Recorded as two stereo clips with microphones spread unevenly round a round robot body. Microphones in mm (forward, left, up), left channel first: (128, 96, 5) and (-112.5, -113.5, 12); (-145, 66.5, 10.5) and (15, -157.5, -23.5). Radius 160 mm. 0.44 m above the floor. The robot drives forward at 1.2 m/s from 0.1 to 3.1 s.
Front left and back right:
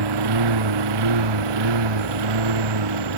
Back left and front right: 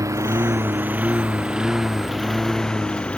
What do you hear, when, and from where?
0.0 s a lawn mower: 135° right; by 3.2 s 150° right